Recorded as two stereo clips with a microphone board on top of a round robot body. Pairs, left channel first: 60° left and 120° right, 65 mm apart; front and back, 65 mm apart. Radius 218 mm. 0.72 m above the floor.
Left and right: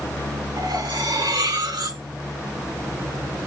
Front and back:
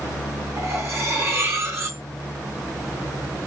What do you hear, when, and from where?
0.6 s cutlery clinking: 130° right, 5.5 m